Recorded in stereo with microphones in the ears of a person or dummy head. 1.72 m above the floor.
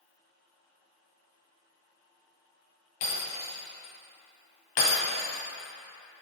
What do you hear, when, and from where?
3.0 s breaking glass: 45° left (ahead or behind), 2 m